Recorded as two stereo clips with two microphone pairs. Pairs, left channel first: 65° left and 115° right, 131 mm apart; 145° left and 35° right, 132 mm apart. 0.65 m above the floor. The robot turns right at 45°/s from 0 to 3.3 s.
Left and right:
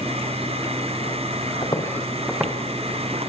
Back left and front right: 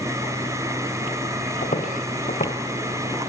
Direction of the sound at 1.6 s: 120° left.